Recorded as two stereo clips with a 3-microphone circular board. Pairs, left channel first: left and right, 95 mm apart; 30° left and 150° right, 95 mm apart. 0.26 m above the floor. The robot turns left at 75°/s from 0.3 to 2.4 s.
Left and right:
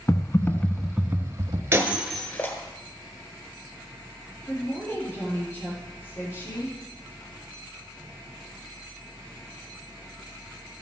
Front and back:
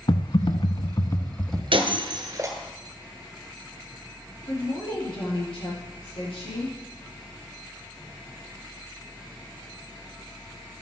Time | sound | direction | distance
0.1 | typing on a keyboard | 40° left | 0.8 m
1.7 | breaking glass | 155° right | 1.5 m
4.5 | a woman speaking | 30° left | 6 m